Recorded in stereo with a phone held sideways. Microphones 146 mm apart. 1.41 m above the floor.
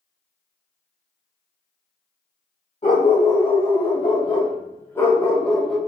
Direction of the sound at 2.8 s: 50° left (ahead or behind).